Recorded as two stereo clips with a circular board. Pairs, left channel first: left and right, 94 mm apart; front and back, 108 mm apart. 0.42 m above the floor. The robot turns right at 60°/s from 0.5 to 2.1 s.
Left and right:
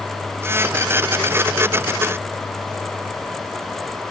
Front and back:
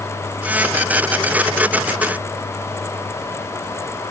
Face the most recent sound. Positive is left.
No sound to turn to.